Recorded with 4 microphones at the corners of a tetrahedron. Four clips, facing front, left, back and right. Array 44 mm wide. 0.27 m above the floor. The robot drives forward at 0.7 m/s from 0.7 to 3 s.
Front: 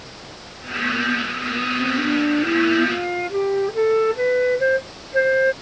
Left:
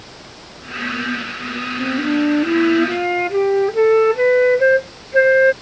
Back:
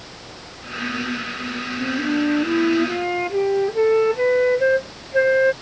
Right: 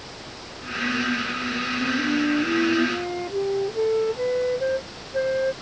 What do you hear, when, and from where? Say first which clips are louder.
1.8 s a flute: left 6 dB, back 1 dB; 85° left; by 5.5 s 95° left